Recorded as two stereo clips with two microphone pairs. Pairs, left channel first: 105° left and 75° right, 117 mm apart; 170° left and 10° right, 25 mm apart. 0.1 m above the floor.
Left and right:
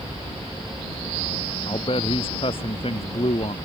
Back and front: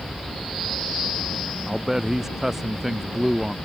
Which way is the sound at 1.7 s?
65° left.